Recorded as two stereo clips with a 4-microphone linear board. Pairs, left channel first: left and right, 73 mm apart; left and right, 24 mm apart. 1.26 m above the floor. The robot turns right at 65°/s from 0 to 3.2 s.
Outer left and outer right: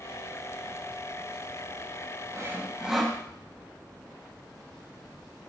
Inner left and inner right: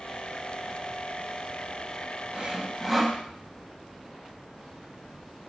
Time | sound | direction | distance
2.3 | sawing | 40° right | 1.0 m